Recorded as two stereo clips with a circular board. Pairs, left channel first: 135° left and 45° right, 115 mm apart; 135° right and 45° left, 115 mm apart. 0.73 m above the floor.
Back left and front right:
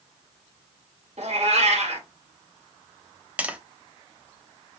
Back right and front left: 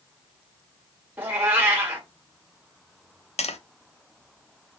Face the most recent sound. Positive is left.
turn(degrees=-125)